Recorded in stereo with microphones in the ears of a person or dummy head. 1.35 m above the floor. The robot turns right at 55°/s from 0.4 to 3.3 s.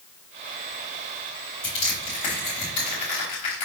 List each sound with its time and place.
1.6 s crushing: 10° left (ahead or behind), 1.2 m; by 3.6 s 25° left (ahead or behind), 1.2 m